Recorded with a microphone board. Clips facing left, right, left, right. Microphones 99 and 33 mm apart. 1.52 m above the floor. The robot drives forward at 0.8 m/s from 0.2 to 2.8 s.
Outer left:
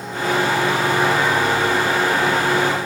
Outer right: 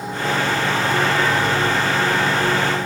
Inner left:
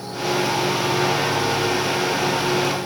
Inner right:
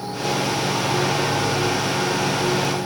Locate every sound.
Only background noise.